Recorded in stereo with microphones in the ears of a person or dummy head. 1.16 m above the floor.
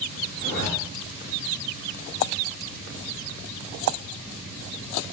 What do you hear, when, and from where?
0.4 s a zipper: 55° right (ahead or behind), 9.5 m